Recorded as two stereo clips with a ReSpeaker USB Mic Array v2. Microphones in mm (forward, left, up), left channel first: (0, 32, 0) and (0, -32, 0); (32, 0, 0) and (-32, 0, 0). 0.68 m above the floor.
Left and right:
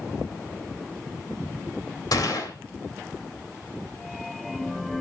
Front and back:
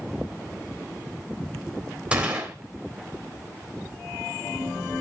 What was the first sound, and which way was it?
A gunshot, 105° left.